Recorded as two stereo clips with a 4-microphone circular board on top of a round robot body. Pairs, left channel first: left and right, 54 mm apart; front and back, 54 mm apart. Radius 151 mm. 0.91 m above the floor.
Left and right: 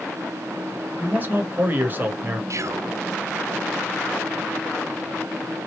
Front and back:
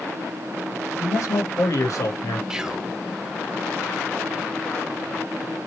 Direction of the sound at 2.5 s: 105° right.